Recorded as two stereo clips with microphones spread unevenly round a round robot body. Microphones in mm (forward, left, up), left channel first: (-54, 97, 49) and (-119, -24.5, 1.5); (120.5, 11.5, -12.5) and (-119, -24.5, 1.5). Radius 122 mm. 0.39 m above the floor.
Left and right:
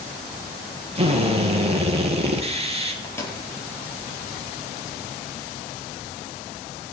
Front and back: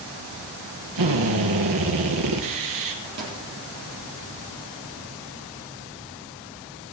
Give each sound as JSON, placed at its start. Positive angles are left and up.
{"t": 0.9, "sound": "a drill", "azimuth_deg": -165, "distance_m": 3.5}
{"t": 3.0, "sound": "a microwave", "azimuth_deg": 135, "distance_m": 7.5}